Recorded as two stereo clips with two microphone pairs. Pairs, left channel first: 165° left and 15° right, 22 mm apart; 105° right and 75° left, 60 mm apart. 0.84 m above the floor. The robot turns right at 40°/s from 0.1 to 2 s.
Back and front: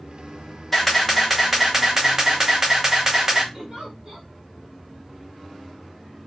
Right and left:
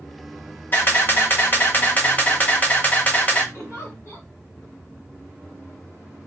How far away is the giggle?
About 1.8 m.